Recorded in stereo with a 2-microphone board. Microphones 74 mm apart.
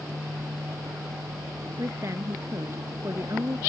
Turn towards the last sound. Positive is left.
turn(degrees=-45)  # may be behind; listen again after turning